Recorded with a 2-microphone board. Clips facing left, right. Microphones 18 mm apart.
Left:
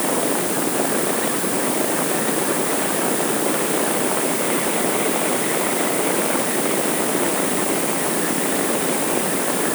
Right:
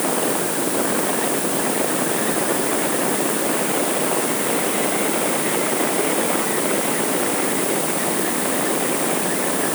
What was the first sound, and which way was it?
Only background noise.